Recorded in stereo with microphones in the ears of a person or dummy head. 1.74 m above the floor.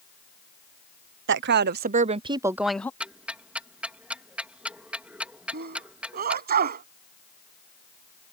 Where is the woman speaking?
60° right (ahead or behind); by 2.9 s 15° left (ahead or behind).